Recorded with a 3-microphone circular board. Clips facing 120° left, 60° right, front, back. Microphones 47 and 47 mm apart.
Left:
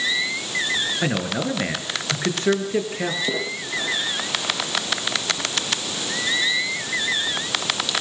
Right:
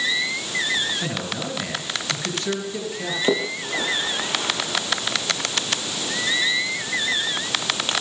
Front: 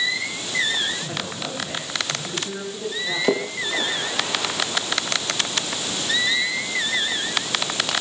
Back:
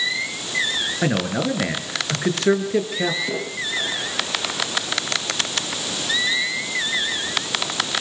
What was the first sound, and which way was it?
A man speaking, straight behind.